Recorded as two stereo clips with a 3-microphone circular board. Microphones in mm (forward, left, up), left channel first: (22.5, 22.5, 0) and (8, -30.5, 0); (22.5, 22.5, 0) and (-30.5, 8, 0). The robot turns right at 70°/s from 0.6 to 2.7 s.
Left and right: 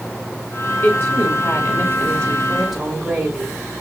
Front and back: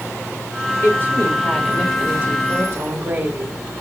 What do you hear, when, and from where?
0.8 s a woman speaking: 40° left, 1.9 m; by 3.6 s 170° left, 1.9 m